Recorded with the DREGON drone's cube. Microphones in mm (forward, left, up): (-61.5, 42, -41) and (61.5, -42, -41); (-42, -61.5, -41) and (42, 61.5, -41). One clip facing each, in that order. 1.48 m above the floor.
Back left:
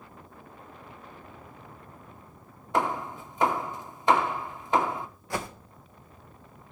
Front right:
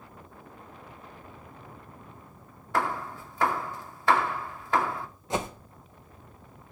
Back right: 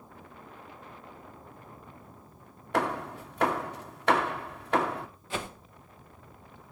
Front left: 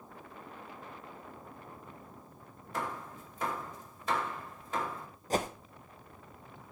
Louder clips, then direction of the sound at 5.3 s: Front right 3 dB, front left 5 dB; 30° left.